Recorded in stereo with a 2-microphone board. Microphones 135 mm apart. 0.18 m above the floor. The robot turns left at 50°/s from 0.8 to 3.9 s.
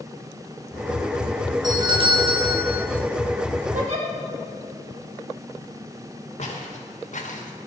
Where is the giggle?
65° right (ahead or behind), 5 m; by 4.1 s 60° right (ahead or behind), 5 m.